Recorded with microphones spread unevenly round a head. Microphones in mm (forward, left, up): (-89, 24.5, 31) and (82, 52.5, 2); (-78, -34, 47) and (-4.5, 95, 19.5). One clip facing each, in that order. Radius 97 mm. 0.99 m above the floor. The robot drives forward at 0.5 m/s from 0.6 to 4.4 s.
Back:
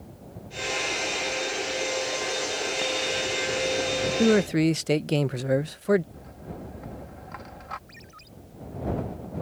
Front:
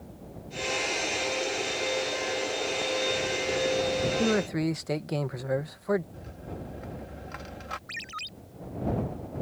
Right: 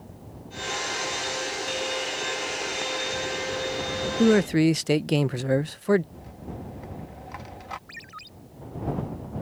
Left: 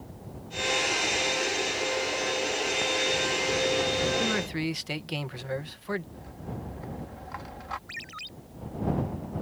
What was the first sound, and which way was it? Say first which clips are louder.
A man speaking: back 10 dB, right 11 dB; 100° right.